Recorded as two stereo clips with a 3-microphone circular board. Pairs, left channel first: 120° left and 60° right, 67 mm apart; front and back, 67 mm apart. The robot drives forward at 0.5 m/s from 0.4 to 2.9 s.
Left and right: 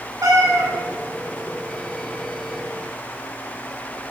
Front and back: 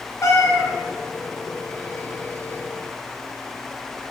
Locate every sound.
0.2 s a cat meowing: 35° right, 1.1 m; by 0.7 s 40° right, 1.0 m